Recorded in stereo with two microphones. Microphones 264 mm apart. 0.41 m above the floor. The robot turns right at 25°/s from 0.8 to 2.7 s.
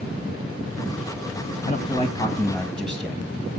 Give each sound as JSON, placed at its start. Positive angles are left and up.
{"t": 1.6, "sound": "a man speaking", "side_deg": 25, "distance_m": 2.5}